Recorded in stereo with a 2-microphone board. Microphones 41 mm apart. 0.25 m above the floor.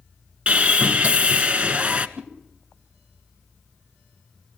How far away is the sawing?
About 1.4 m.